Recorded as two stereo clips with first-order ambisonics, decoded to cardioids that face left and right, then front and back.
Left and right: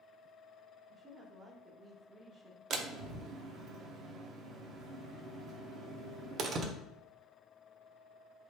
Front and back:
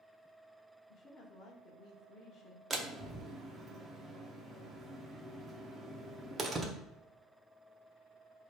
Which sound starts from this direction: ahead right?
A woman speaking, at 0.9 s.